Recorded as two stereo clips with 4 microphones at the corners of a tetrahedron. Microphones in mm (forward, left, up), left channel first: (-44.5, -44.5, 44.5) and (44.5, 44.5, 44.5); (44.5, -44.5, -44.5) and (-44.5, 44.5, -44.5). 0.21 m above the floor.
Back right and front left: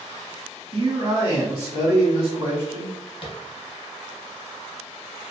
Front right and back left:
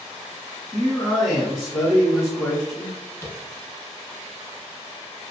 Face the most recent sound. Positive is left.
turn(degrees=-105)